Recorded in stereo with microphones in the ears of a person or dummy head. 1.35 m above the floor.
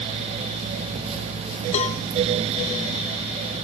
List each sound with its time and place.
1.7 s a cowbell: 40° left (ahead or behind), 0.9 m